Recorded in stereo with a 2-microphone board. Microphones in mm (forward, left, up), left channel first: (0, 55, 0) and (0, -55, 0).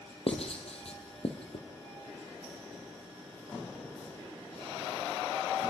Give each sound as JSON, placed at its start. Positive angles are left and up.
{"t": 0.3, "sound": "writing", "side_deg": 65, "distance_m": 3.0}